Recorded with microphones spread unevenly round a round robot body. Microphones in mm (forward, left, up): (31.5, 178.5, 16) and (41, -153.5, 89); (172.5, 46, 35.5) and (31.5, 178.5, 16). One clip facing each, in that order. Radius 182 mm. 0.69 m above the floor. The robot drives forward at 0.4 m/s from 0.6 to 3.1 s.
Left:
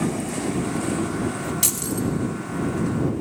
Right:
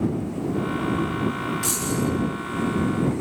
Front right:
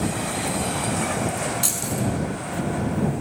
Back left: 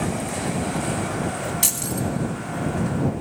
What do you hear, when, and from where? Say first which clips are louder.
1.6 s keys jangling: right 3 dB, front right 1 dB; 130° left, 4.5 m